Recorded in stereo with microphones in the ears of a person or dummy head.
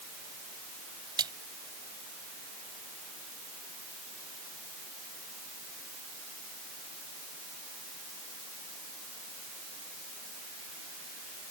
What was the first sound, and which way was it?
A splash, 20° right (ahead or behind).